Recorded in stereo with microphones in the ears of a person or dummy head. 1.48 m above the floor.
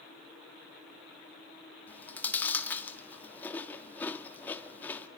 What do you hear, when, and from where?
1.9 s chewing: 20° left (ahead or behind), 1.6 m